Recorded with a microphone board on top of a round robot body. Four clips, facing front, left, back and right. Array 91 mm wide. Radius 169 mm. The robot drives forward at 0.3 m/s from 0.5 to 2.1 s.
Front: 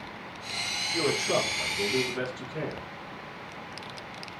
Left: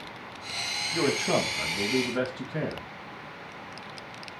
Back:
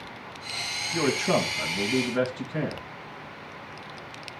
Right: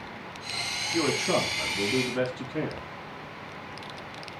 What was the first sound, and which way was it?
A man speaking, 140° left.